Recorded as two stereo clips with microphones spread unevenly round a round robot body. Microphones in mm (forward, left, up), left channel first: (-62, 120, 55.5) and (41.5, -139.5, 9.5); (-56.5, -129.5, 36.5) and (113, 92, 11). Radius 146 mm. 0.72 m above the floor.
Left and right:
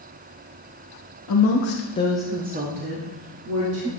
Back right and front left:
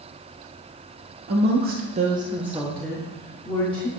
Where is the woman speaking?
90° left, 1.2 m; by 3.9 s 55° right, 2 m.